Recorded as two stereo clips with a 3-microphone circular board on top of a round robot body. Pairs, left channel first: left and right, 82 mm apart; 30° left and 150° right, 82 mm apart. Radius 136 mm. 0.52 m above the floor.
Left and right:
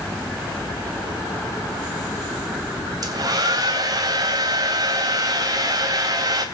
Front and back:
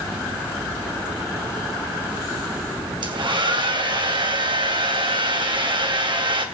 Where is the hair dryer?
130° right, 3 m.